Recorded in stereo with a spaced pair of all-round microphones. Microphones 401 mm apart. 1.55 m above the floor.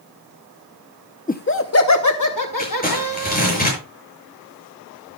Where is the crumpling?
20° left (ahead or behind), 7 m.